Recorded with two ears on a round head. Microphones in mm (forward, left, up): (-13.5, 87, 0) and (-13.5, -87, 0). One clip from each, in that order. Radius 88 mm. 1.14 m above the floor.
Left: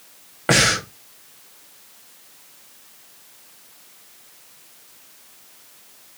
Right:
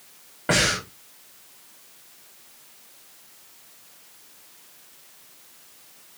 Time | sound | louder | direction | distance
0.5 | breathing | left 4 dB | 30° left (ahead or behind) | 1.1 m